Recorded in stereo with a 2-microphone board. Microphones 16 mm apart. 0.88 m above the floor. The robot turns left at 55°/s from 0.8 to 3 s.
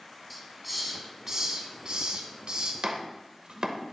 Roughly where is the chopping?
Right.